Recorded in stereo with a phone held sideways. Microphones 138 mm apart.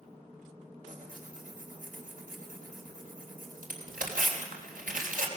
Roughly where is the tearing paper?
Right.